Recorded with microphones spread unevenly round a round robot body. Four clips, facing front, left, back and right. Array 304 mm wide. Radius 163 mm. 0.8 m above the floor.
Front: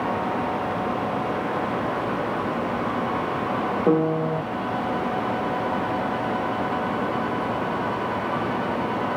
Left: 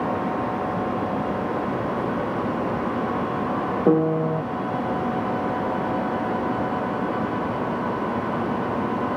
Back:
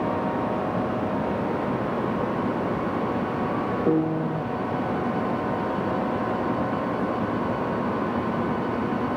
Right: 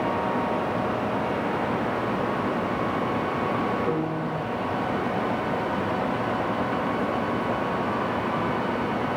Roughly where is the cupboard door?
No cupboard door in this recording.